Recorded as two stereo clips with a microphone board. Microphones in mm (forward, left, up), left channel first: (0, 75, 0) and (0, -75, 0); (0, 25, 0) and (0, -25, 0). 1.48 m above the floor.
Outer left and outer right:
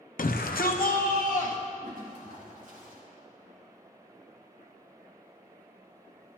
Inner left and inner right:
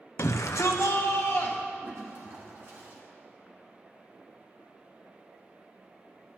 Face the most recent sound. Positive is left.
turn(degrees=-60)  # may be behind; listen again after turning